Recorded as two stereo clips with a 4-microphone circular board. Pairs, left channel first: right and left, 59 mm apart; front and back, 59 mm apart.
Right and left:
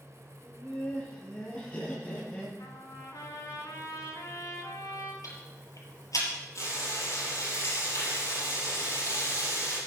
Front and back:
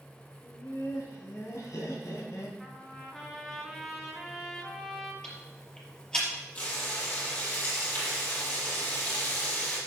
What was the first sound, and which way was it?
Laughter, 25° right.